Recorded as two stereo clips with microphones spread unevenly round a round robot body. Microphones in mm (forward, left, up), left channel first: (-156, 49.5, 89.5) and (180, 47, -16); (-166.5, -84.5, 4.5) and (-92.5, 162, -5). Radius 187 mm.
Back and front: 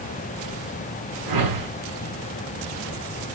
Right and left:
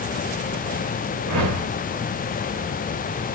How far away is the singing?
No singing in this recording.